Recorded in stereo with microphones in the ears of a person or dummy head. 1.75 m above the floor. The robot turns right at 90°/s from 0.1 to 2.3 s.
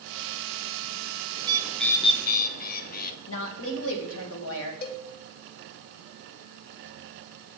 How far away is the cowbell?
About 0.9 m.